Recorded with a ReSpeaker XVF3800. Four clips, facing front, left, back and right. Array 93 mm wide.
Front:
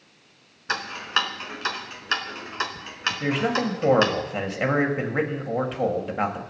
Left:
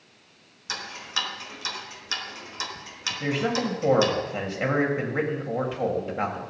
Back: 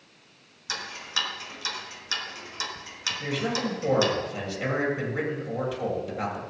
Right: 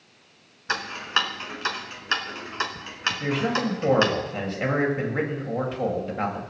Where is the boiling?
I don't hear boiling.